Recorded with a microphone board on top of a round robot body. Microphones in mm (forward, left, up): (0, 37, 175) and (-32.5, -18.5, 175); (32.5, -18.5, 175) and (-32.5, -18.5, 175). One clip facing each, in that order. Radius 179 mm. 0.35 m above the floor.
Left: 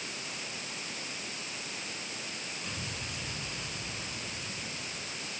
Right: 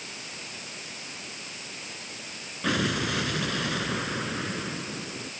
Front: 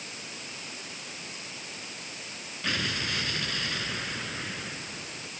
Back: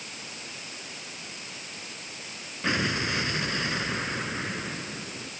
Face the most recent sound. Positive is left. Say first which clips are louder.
# right 18 dB, back 4 dB
turn(degrees=-115)